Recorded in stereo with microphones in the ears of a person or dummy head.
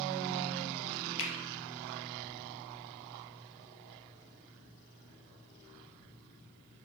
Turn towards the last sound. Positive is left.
turn(degrees=70)  # may be behind; listen again after turning